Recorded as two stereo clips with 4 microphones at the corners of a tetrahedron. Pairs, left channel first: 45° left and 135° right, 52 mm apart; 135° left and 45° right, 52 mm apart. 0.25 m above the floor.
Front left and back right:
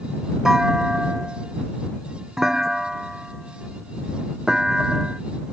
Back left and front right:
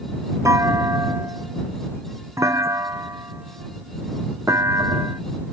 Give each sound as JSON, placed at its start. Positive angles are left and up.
{"t": 0.5, "sound": "a clunk", "azimuth_deg": -55}